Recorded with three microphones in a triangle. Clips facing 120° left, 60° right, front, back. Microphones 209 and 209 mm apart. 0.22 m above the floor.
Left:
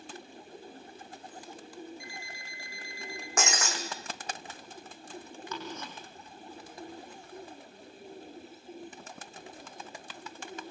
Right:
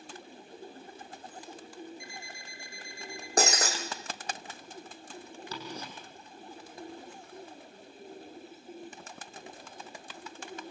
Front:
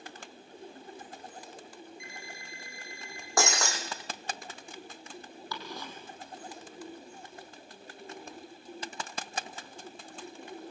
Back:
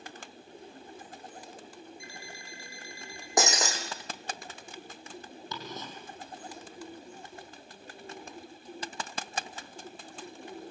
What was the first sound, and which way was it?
An alarm clock, 125° right.